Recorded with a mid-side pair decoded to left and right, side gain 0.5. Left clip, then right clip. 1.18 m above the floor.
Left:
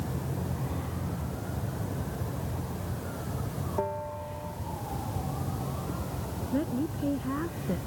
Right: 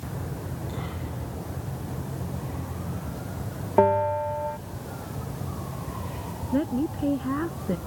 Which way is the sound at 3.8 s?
65° right.